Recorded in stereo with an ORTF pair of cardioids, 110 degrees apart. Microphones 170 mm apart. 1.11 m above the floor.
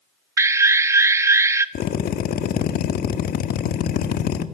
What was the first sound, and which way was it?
An alarm, 15° right.